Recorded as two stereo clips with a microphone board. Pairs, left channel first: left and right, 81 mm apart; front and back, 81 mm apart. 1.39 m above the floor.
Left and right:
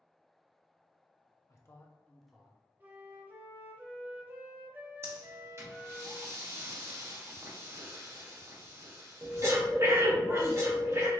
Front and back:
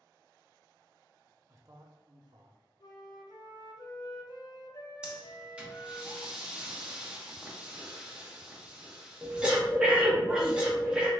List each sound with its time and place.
1.5 s a man speaking: 130° left, 0.6 m; by 2.6 s 170° right, 0.7 m
2.8 s a flute: 25° right, 0.5 m
5.0 s breathing: 110° right, 0.7 m